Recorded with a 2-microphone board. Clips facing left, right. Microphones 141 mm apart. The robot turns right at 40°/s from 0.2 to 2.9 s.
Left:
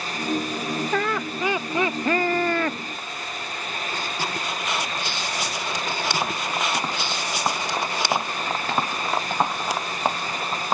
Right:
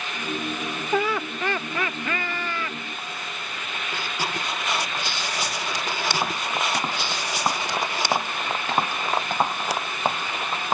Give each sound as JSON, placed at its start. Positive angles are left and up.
{"t": 0.9, "sound": "laughter", "azimuth_deg": -10}